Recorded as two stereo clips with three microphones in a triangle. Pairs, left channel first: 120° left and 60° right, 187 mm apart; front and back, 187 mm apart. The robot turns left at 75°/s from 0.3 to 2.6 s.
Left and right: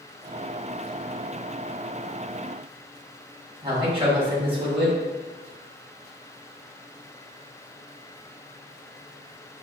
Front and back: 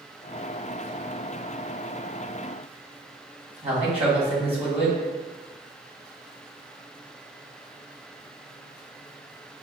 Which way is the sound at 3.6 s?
125° right.